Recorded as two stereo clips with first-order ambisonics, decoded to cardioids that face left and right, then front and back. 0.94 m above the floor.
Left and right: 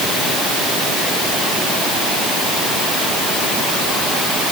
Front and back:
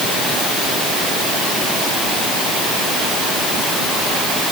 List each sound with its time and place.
Only background noise.